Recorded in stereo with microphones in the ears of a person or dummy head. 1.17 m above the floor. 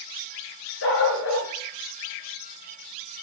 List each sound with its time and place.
0.8 s a dog barking: 75° left (ahead or behind), 4 m